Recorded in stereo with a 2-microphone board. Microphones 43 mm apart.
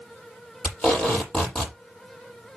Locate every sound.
0.6 s tape being pulled: 15° left (ahead or behind), 6.5 m